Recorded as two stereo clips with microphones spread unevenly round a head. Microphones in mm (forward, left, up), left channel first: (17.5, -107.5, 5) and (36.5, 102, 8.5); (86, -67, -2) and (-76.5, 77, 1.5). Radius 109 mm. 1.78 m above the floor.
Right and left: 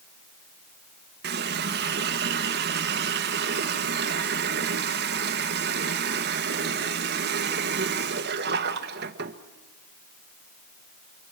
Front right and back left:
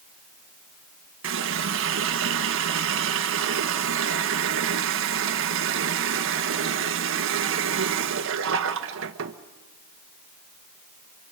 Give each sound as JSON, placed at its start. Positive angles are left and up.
{"t": 1.2, "sound": "a running tap", "azimuth_deg": 120, "distance_m": 1.5}